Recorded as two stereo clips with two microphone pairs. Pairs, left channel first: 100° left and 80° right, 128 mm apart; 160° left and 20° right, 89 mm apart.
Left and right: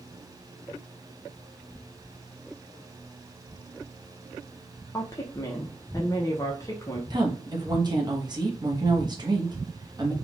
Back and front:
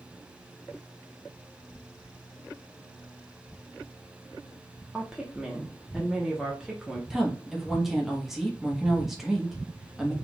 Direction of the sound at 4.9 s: 60° left.